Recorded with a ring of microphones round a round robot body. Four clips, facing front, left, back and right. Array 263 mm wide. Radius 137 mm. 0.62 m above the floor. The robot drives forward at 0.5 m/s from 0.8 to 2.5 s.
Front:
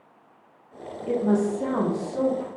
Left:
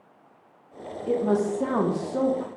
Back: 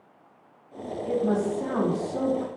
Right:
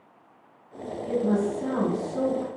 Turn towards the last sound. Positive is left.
turn(degrees=115)